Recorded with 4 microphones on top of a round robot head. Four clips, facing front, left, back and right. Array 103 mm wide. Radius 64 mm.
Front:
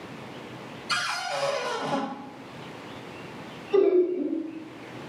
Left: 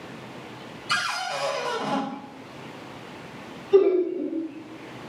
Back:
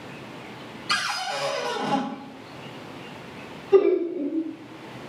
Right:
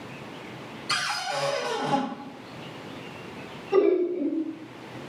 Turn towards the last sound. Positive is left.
turn(degrees=-135)